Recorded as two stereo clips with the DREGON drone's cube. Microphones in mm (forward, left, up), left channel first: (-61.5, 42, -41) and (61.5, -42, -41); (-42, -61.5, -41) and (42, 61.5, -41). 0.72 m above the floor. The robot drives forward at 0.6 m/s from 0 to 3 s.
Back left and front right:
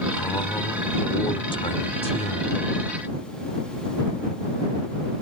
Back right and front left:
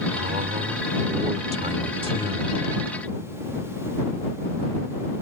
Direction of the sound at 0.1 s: 75° left.